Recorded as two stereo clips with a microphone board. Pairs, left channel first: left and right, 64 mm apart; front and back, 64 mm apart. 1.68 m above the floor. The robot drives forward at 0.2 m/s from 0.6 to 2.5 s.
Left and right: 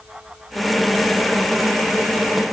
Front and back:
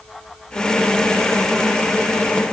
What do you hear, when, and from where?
Only background noise.